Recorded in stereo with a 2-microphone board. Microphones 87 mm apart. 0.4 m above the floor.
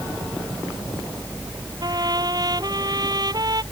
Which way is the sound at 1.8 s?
50° right (ahead or behind).